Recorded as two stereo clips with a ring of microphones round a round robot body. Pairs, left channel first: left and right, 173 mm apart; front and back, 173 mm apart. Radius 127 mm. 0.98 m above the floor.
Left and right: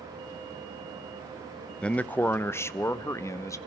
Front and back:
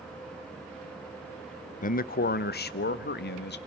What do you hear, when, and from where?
1.8 s a man speaking: 5° left, 0.7 m; by 3.6 s 15° left, 1.8 m